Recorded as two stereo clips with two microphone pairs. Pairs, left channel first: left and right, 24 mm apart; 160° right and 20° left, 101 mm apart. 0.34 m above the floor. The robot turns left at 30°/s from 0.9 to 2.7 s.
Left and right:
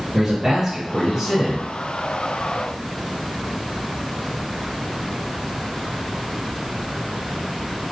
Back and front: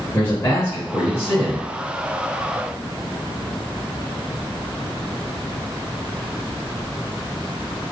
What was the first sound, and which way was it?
A man speaking, 150° right.